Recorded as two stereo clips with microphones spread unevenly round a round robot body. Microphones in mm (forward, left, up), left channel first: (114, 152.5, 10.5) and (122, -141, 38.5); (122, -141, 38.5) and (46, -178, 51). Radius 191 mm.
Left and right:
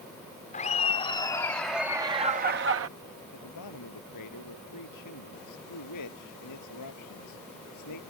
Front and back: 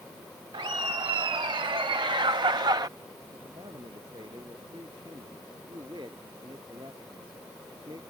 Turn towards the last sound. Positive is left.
turn(degrees=135)